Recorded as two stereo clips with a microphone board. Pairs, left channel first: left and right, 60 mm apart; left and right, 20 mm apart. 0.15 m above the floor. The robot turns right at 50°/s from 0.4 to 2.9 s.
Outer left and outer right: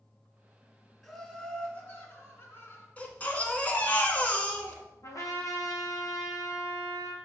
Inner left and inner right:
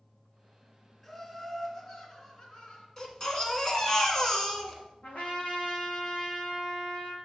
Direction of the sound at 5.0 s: 70° left (ahead or behind).